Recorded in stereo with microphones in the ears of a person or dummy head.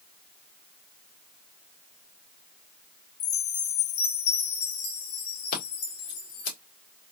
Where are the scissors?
60° left (ahead or behind), 2.0 m.